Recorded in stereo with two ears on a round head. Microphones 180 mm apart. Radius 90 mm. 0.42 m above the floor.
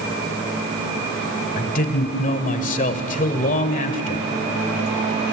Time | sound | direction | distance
1.6 | a man speaking | 40° left (ahead or behind) | 2.0 m